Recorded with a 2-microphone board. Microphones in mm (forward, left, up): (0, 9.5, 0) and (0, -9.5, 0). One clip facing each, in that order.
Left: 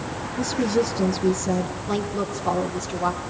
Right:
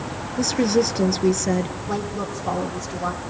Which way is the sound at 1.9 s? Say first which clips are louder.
Left 1 dB; 45° left (ahead or behind).